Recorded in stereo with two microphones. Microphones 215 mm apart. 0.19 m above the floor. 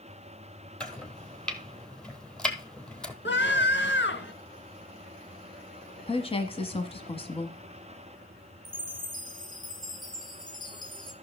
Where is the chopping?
5° left (ahead or behind), 1.2 m.